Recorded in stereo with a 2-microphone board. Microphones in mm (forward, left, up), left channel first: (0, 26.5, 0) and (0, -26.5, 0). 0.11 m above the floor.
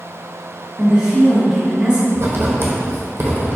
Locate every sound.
0.8 s a woman speaking: 15° right (ahead or behind), 1.7 m
2.1 s writing: 55° right (ahead or behind), 0.8 m